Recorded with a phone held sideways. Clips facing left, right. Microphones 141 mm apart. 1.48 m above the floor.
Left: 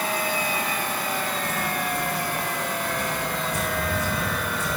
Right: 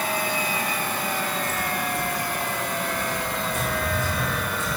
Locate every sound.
1.4 s footsteps: 60° left (ahead or behind), 5.5 m; by 4.8 s 70° left (ahead or behind), 5.5 m